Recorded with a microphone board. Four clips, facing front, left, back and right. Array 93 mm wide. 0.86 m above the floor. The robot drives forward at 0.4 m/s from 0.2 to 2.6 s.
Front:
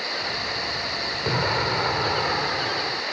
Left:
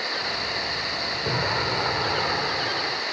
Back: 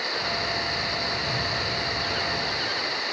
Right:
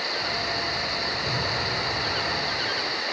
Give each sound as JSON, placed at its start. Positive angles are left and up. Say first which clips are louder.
{"t": 1.2, "sound": "an explosion", "louder": "left 7 dB, front 5 dB", "azimuth_deg": 25}